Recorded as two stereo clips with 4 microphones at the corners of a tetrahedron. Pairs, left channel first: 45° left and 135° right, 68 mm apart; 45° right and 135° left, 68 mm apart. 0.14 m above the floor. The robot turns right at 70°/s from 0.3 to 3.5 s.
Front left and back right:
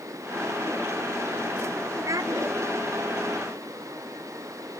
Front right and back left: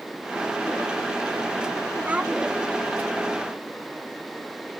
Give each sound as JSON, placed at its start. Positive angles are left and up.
{"t": 2.0, "sound": "a child speaking", "azimuth_deg": -165}